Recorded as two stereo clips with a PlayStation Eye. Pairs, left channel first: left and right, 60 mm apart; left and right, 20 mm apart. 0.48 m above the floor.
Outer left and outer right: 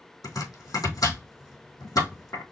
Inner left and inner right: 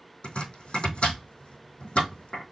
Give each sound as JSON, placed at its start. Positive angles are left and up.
{"t": 0.2, "sound": "chopping", "side_deg": 80, "distance_m": 3.0}